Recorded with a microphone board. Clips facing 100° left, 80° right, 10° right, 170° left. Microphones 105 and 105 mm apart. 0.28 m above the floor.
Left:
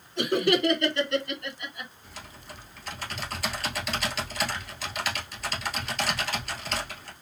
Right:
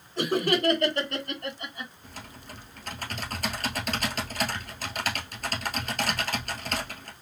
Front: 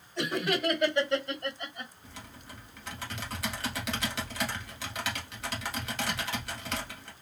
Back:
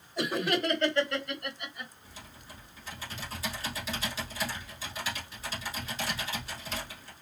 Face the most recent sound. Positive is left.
turn(degrees=-35)